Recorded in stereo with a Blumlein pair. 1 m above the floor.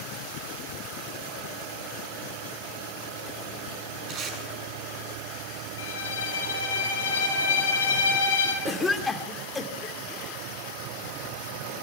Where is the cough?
15° left, 3 m.